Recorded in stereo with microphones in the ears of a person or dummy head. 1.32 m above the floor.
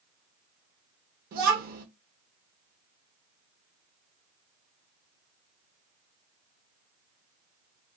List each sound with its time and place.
1.3 s a child speaking: 50° right (ahead or behind), 0.7 m